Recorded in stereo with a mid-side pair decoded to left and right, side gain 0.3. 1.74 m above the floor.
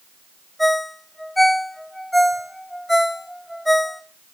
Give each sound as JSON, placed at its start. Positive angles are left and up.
{"t": 0.6, "sound": "a ringtone", "azimuth_deg": 25, "distance_m": 4.0}